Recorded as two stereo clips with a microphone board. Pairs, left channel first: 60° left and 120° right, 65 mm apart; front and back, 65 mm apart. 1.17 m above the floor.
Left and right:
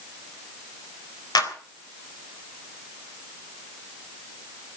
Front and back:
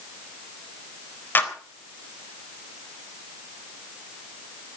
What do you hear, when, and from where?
1.4 s a clap: 60° left, 3.5 m